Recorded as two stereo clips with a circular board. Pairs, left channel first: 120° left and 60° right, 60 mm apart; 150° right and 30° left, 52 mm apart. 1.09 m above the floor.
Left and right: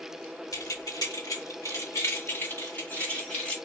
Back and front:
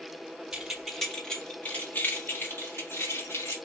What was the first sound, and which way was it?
Keys jangling, 110° left.